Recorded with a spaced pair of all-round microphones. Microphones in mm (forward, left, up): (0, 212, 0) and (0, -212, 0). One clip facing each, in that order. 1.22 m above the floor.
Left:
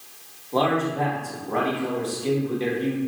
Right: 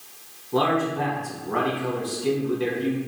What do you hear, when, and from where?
0.5 s a man speaking: 25° right (ahead or behind), 1.1 m